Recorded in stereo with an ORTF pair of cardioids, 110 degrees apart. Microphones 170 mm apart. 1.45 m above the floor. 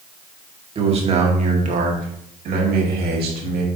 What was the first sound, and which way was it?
A man speaking, 35° right.